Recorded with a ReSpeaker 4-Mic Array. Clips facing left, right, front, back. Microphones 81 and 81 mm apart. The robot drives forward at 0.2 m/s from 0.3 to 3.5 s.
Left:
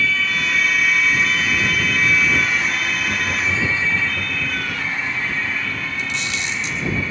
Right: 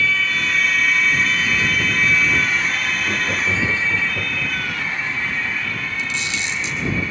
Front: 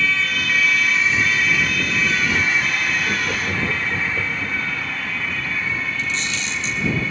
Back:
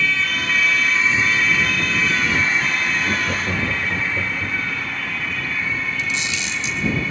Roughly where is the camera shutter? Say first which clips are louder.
Even, even; left.